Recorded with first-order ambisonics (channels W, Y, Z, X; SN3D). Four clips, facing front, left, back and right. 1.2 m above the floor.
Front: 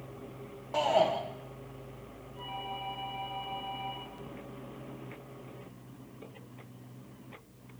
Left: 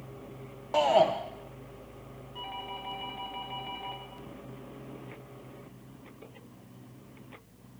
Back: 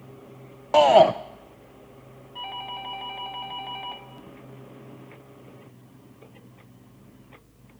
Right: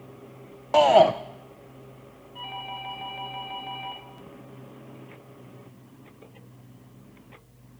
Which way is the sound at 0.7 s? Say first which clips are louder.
Right 7 dB, back 12 dB; 150° right.